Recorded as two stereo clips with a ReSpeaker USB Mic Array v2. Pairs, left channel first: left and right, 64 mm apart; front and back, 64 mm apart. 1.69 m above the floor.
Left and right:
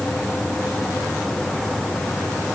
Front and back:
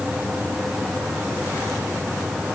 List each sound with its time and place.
Only background noise.